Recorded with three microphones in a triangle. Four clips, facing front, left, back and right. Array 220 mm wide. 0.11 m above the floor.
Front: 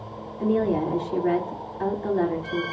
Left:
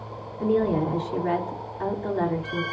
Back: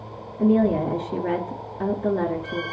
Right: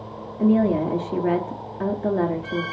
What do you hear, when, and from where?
0.4 s a woman speaking: 125° right, 8.5 m